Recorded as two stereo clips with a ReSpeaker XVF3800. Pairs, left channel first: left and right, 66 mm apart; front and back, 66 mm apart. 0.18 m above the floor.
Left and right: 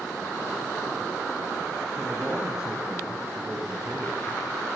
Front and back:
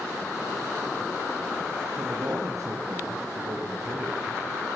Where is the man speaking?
175° right, 2.5 m.